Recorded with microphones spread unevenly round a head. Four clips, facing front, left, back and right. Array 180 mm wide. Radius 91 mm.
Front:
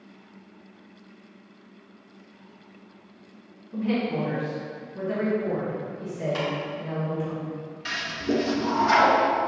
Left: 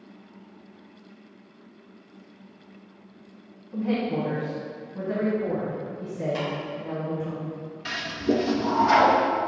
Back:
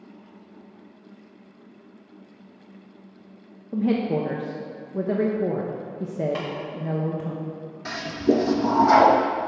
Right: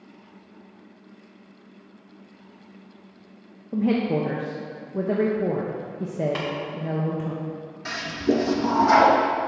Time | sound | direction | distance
3.7 | a woman speaking | 125° right | 1.0 m
6.3 | tapping | 75° right | 3.5 m
7.8 | a toilet flushing | 160° right | 0.6 m